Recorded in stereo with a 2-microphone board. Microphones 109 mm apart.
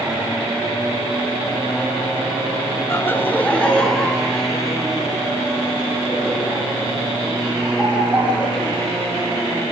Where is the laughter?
25° left (ahead or behind), 1.1 m; by 8.8 s 10° right (ahead or behind), 6 m.